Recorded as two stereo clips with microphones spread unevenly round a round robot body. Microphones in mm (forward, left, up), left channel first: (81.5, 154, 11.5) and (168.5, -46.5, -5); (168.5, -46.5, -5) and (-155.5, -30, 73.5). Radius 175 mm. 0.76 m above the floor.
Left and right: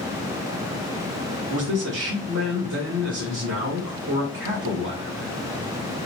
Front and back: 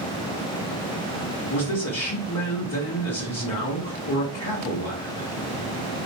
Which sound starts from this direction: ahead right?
A man speaking, at 1.5 s.